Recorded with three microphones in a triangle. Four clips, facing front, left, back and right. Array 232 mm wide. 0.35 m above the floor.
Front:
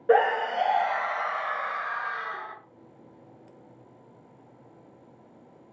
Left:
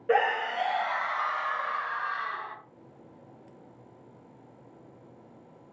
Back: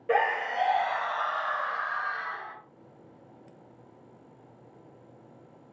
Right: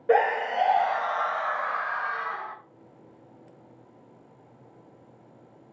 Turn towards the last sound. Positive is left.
turn(degrees=-85)